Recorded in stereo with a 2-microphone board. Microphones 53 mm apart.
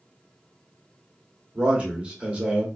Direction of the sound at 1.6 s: 25° right (ahead or behind).